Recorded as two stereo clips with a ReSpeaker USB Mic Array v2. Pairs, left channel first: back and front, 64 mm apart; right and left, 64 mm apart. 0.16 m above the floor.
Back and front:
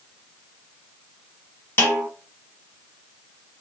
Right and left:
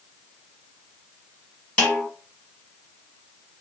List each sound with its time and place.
1.8 s a snare drum: 150° right, 1.6 m